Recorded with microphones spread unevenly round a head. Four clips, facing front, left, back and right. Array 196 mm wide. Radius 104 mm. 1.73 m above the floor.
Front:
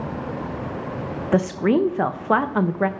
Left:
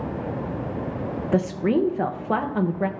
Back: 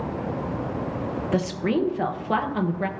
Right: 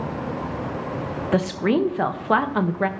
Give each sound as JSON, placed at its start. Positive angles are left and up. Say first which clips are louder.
{"t": 1.3, "sound": "a woman speaking", "louder": "right 1 dB, front 6 dB", "azimuth_deg": -10, "distance_m": 0.6}